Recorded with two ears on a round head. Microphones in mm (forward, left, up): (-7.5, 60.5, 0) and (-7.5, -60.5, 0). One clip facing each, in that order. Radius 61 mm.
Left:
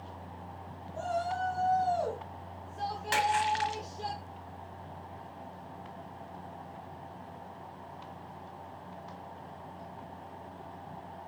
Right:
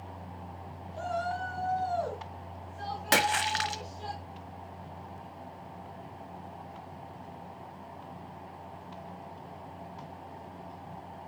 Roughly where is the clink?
No clink in this recording.